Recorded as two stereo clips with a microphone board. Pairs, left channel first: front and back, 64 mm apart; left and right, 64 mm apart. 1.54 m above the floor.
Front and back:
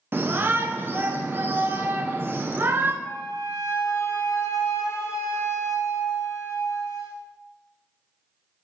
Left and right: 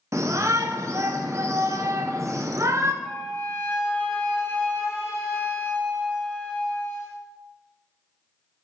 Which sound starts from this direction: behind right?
A shout, at 0.1 s.